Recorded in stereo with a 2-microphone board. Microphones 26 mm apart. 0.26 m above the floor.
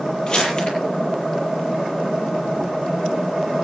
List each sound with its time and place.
0.3 s crumpling: 30° left (ahead or behind), 8 m